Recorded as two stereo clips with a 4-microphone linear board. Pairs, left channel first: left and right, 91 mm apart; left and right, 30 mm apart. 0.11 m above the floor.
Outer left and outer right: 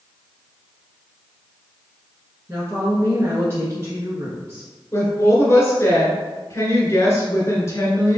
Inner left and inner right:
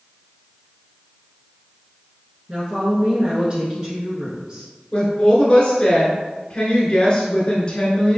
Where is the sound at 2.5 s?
30° right (ahead or behind), 1.3 m.